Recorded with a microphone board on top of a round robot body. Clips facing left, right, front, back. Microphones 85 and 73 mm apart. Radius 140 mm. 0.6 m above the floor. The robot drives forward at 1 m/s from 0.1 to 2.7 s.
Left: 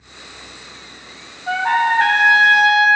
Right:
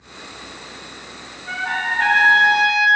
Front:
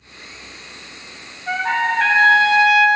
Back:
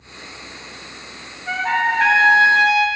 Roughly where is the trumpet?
Left.